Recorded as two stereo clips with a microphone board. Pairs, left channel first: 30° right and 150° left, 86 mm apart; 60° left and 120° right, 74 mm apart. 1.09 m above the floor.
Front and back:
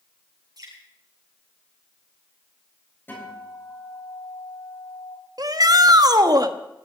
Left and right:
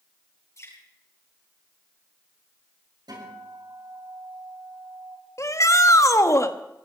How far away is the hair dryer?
No hair dryer in this recording.